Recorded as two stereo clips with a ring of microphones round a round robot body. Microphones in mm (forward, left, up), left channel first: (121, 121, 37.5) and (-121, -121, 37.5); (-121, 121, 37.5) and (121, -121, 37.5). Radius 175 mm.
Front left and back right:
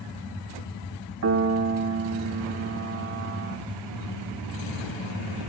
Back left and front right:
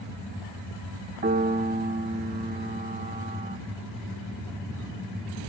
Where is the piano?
105° right, 1.3 m.